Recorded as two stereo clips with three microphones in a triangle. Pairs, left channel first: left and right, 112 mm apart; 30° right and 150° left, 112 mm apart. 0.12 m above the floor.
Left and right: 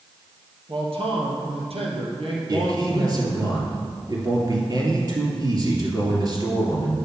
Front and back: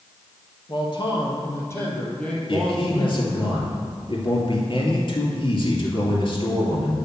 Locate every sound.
0.7 s a man speaking: 65° right, 2.5 m; by 3.5 s 135° right, 3.5 m
2.5 s a man speaking: 50° right, 2.5 m